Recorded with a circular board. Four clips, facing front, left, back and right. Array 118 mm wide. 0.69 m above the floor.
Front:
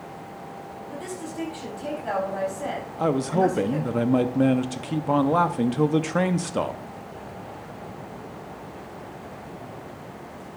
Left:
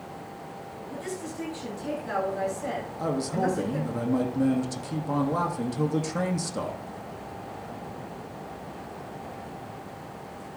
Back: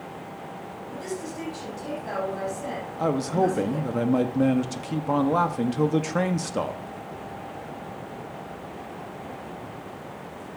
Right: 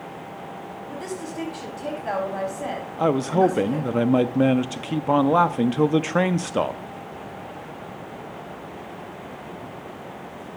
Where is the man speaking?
80° right, 0.6 m.